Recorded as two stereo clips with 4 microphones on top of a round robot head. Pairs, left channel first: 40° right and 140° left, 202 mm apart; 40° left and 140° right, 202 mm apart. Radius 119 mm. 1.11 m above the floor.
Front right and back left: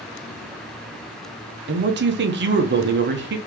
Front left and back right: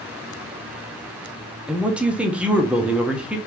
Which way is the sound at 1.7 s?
135° left.